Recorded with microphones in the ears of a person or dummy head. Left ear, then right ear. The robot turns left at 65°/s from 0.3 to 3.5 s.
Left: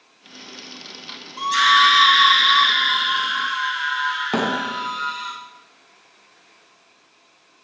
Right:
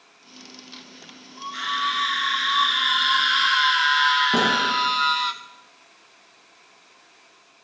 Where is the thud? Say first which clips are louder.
Right 2 dB; 30° left (ahead or behind), 2 m.